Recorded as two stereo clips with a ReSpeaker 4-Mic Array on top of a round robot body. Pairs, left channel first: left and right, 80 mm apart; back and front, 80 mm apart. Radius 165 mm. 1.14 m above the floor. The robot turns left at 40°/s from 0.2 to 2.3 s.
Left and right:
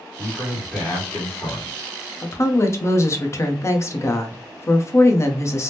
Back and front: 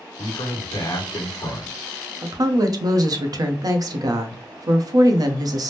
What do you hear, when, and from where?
0.2 s a man speaking: straight behind, 1.5 m; by 1.7 s 120° left, 1.5 m
2.2 s a woman speaking: 40° left, 0.7 m; by 5.7 s 35° left, 0.7 m